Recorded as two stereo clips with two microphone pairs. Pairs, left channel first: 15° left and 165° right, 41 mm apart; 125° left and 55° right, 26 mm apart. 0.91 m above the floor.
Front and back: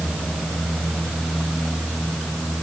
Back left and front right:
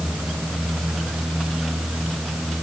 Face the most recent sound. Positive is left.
No sound to turn to.